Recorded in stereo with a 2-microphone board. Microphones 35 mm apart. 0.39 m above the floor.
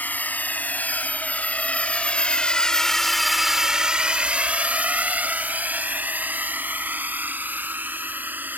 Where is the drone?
55° left (ahead or behind); by 8.6 s 60° right (ahead or behind).